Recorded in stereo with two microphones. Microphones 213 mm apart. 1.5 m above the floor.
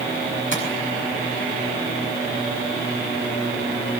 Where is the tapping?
70° left (ahead or behind), 7 m.